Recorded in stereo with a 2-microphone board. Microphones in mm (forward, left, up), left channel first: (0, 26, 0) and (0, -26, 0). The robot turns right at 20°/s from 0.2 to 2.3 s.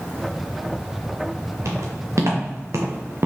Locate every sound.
1.6 s footsteps: 80° right, 3.5 m; by 3.3 s 60° right (ahead or behind), 1.6 m